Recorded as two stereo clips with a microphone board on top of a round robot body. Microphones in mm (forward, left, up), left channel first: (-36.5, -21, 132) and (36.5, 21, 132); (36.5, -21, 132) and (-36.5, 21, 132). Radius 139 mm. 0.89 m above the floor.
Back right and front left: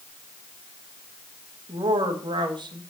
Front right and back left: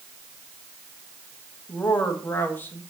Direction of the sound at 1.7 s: 35° left.